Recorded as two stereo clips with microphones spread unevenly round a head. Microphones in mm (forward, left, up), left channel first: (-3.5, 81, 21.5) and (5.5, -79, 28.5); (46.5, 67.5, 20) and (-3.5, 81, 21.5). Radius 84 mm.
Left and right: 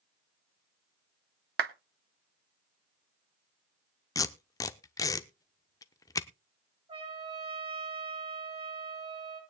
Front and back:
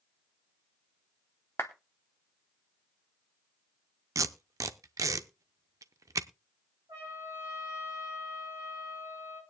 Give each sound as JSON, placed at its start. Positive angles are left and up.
{"t": 1.6, "sound": "a clap", "azimuth_deg": -80, "distance_m": 0.8}
{"t": 4.2, "sound": "tape being pulled", "azimuth_deg": 165, "distance_m": 0.6}
{"t": 6.9, "sound": "a trumpet", "azimuth_deg": -150, "distance_m": 8.0}